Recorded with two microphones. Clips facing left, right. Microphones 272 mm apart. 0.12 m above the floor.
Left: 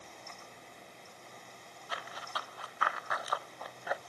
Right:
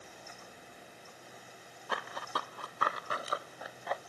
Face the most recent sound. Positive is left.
turn(degrees=10)  # may be behind; listen again after turning